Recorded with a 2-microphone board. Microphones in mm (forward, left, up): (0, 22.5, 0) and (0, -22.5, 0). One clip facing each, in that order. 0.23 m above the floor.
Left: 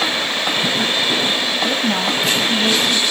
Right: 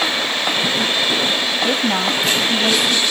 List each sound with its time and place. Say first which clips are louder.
1.6 s a woman speaking: right 1 dB; 15° right (ahead or behind), 1.5 m